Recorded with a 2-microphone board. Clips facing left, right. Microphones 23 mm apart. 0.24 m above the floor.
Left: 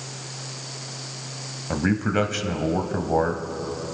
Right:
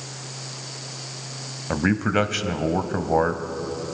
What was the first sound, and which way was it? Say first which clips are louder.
A man speaking: right 1 dB; 15° right (ahead or behind).